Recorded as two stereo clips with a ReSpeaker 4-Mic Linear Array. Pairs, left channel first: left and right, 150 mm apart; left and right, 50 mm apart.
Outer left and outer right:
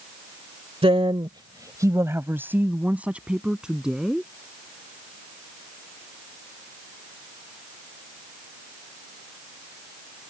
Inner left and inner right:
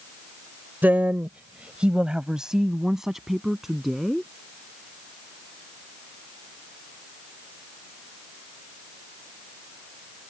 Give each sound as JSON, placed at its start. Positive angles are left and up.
{"t": 0.8, "sound": "a woman speaking", "side_deg": -40}